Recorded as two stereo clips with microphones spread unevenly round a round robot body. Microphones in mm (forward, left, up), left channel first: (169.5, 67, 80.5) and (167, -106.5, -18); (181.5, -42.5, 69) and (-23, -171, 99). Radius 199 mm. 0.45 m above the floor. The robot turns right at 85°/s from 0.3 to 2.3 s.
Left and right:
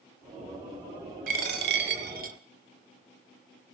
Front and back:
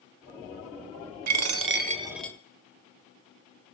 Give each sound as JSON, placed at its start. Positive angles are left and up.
{"t": 1.3, "sound": "a dropped coin", "azimuth_deg": -135, "distance_m": 0.8}